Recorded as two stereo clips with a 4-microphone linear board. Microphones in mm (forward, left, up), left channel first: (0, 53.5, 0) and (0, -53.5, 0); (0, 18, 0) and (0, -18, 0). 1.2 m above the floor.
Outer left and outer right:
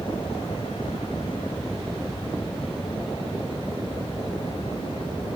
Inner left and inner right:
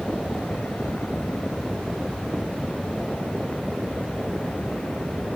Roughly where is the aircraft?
Left.